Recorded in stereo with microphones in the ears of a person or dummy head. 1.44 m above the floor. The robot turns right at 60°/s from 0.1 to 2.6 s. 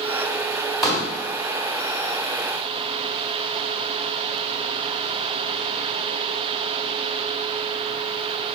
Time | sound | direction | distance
0.8 | a pop | centre (ahead or behind) | 1.5 m